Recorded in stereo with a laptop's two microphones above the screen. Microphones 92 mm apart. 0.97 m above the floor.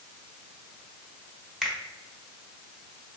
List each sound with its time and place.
1.6 s a finger snap: 5° right (ahead or behind), 1.1 m